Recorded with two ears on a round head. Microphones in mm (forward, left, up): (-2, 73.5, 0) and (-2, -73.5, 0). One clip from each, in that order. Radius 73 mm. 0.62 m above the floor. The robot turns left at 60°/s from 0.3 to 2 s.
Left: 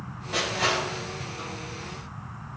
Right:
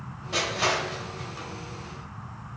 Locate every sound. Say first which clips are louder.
0.3 s crushing: even; 20° right (ahead or behind), 3.5 m; by 1.5 s 70° right (ahead or behind), 3.5 m